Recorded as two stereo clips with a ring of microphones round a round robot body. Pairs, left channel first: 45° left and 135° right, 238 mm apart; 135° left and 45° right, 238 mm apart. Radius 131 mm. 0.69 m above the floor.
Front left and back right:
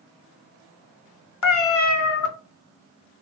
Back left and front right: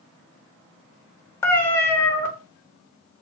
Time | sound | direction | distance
1.4 | a cat meowing | 55° left | 0.7 m